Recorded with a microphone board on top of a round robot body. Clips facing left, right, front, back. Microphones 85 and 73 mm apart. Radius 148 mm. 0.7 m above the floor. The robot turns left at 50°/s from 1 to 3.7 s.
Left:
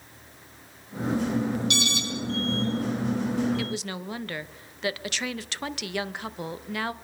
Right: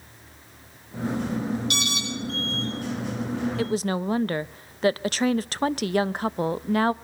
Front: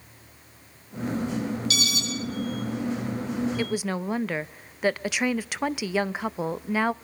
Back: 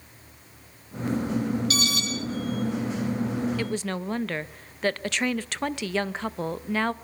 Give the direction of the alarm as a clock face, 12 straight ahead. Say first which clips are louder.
Left 1 dB, back 2 dB; 4 o'clock.